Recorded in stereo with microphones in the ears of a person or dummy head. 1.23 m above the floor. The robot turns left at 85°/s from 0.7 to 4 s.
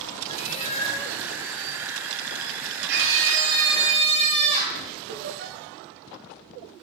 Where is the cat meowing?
45° left, 1.3 m; by 1.2 s 5° left, 1.3 m.